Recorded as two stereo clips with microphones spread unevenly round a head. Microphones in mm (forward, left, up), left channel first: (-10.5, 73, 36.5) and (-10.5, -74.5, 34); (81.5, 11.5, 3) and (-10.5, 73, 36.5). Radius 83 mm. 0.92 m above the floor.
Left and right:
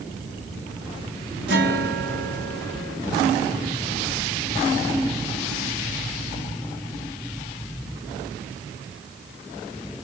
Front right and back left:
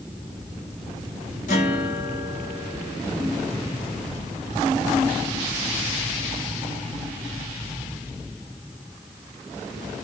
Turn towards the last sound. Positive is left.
turn(degrees=-80)